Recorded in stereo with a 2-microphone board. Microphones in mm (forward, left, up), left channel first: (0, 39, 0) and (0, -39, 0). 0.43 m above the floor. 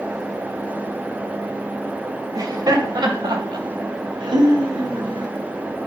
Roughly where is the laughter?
Right.